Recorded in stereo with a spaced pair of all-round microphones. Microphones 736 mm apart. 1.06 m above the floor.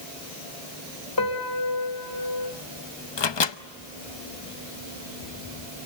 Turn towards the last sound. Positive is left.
turn(degrees=40)  # may be behind; listen again after turning